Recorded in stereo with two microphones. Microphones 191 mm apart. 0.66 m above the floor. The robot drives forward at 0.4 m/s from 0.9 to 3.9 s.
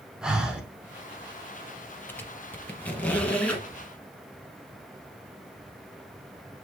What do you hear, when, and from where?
0.2 s breathing: 5° right (ahead or behind), 0.7 m
2.1 s a squeak: 10° left (ahead or behind), 0.5 m; by 3.6 s 5° left (ahead or behind), 1.0 m